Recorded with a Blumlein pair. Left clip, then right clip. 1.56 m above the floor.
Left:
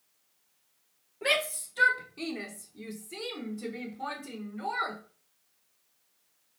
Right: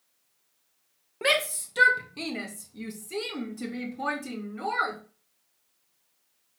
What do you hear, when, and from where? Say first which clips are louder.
1.2 s a shout: right 3 dB; 30° right, 1.9 m; by 5.0 s 55° right, 4.5 m